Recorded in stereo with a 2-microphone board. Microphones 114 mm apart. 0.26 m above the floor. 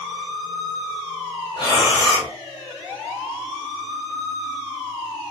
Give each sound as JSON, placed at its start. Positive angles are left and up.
{"t": 1.6, "sound": "breathing", "side_deg": 35, "distance_m": 2.0}